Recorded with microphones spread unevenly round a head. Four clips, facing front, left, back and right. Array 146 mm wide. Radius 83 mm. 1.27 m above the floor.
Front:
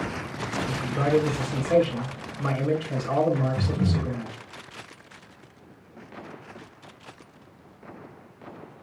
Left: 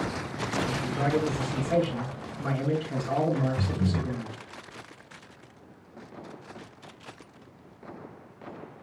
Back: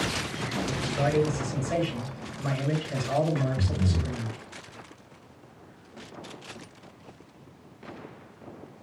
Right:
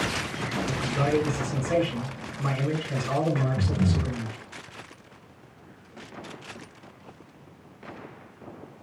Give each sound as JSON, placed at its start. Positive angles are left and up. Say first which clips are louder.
{"t": 0.7, "sound": "a man speaking", "louder": "right 4 dB, front 4 dB", "azimuth_deg": -40, "distance_m": 6.0}
{"t": 3.6, "sound": "breathing", "louder": "right 2 dB, front 3 dB", "azimuth_deg": -50, "distance_m": 1.8}